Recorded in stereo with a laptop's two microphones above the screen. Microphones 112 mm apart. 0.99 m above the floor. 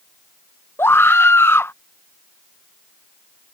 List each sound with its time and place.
0.8 s a scream: 20° left (ahead or behind)